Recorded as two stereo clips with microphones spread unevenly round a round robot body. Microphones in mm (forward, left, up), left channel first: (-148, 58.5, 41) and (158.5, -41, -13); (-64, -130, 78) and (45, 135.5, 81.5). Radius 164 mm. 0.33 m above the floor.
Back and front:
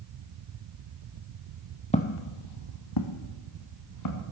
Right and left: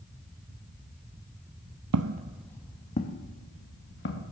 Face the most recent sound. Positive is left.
turn(degrees=-165)